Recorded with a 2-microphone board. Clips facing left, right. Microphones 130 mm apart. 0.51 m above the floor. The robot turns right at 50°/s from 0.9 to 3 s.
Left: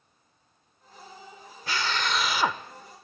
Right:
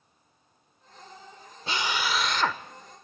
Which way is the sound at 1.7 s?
25° right.